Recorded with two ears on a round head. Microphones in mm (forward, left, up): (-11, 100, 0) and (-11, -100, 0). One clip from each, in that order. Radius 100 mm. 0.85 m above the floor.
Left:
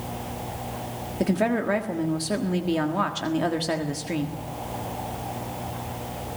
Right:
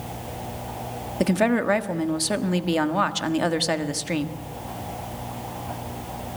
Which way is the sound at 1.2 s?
35° right (ahead or behind).